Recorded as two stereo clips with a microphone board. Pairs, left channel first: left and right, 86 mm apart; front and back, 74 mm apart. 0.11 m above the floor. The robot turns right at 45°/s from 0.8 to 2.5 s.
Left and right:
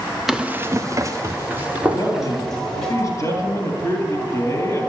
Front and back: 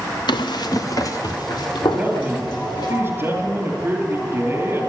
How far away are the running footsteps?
About 0.8 m.